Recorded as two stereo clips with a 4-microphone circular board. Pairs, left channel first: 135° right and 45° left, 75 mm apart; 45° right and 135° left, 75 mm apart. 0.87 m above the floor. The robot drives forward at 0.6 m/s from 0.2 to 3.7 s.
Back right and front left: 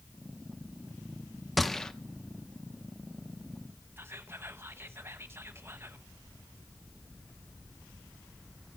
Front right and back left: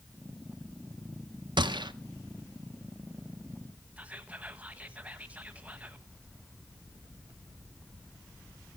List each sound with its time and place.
1.6 s a gunshot: 135° left, 0.6 m; by 1.9 s 145° left, 0.8 m
4.0 s whispering: 75° left, 1.0 m